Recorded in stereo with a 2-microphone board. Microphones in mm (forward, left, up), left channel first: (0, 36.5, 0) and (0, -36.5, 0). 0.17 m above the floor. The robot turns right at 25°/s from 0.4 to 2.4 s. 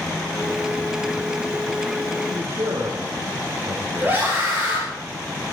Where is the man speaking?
75° right (ahead or behind), 4.5 m; by 4.3 s 70° right (ahead or behind), 4.5 m.